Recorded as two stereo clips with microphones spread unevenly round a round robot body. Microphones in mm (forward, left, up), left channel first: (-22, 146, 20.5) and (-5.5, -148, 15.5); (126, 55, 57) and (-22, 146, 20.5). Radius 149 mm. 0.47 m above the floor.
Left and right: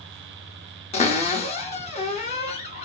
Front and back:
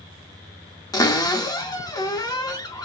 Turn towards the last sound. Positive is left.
turn(degrees=40)